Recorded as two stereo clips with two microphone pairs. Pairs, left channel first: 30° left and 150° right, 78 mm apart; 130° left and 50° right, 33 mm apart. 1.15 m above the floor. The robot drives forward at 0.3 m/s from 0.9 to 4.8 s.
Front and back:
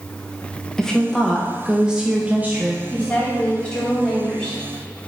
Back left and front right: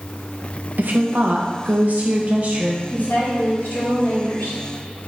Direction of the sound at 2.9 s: 100° left.